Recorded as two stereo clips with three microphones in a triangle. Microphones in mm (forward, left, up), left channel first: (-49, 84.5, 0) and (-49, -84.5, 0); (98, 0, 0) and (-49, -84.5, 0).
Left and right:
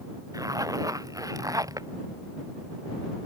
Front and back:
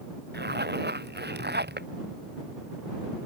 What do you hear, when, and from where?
0.3 s a zipper: 160° right